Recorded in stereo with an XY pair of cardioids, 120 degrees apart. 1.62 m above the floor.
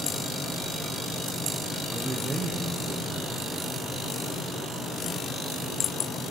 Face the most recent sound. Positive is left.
turn(degrees=-25)